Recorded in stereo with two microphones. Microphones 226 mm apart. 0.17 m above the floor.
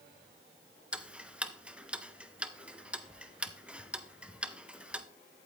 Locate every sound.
0.9 s ticking: 5° right (ahead or behind), 0.7 m